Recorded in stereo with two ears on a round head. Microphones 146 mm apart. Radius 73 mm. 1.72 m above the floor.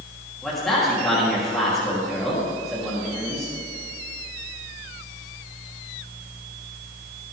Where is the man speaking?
Centre (ahead or behind), 3.5 m.